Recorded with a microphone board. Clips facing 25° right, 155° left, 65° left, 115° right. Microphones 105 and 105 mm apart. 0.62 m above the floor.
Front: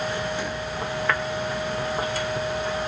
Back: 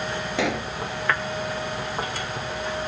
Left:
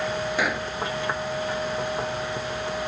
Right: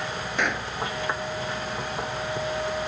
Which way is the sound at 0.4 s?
155° left.